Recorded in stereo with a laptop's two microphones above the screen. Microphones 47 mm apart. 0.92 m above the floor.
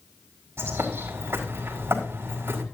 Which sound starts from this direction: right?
A bird, at 0.6 s.